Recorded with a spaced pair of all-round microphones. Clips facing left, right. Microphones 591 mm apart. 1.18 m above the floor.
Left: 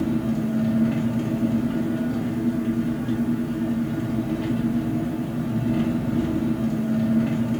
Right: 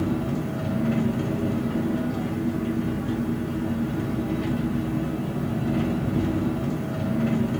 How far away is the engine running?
About 1.0 m.